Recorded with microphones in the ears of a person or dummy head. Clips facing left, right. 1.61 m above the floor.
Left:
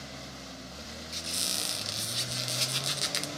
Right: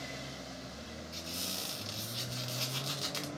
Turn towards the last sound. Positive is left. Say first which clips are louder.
# left 4 dB
turn(degrees=25)  # may be behind; listen again after turning